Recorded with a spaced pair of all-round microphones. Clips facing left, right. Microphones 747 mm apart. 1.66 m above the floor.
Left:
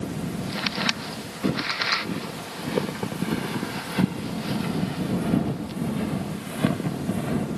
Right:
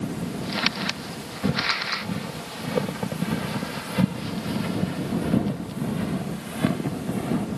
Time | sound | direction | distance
1.4 | footsteps | 25° right (ahead or behind) | ?